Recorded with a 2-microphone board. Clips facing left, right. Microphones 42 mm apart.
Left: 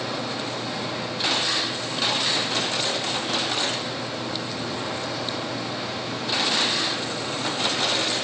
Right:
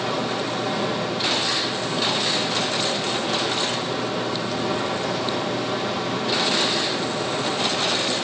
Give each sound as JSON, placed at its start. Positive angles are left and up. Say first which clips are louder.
{"t": 0.0, "sound": "running water", "louder": "right 4 dB", "side_deg": -55, "distance_m": 5.0}